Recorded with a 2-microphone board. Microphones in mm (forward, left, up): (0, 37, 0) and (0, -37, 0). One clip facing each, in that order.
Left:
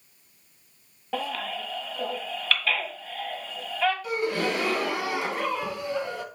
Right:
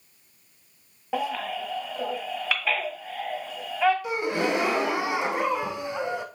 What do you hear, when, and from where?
1.1 s a baby crying: 15° right (ahead or behind), 1.3 m
4.0 s a gasp: 20° right (ahead or behind), 0.7 m